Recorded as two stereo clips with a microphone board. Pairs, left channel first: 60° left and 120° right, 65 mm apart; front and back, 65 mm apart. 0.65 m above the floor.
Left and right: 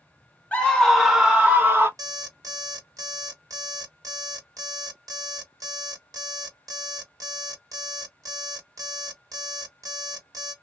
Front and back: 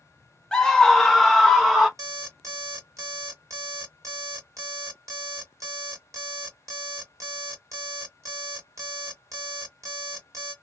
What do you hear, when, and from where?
0.5 s a scream: 55° left, 0.9 m; by 1.9 s 105° right, 1.0 m
2.0 s an alarm clock: 145° right, 1.2 m